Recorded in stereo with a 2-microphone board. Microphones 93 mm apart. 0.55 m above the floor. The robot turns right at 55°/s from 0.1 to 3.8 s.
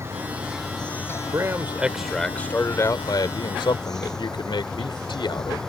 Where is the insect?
30° right; by 5.7 s 175° left.